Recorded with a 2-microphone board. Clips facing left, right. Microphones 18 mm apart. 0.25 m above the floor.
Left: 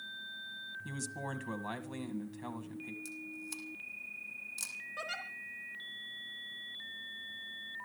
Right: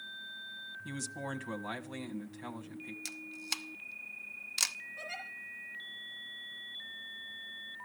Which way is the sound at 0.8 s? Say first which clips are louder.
Right 2 dB; centre (ahead or behind).